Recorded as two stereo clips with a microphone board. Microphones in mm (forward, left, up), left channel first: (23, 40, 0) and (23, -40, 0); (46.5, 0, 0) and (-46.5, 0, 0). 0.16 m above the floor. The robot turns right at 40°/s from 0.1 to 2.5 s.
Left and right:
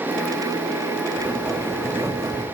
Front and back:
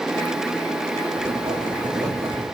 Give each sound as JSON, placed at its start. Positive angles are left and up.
{"t": 1.2, "sound": "writing", "azimuth_deg": -175, "distance_m": 2.0}